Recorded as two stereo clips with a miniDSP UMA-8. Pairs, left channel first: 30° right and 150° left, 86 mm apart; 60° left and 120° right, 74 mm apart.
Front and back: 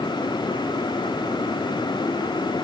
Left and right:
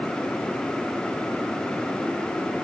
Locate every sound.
Only background noise.